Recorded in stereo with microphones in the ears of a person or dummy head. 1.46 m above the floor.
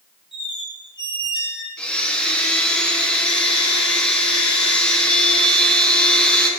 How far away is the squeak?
About 5 m.